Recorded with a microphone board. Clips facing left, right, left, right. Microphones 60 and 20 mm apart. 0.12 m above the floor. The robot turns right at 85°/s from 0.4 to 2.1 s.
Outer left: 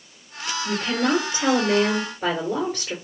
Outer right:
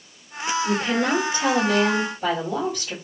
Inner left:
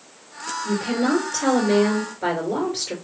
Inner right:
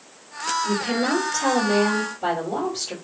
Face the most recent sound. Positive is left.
turn(degrees=100)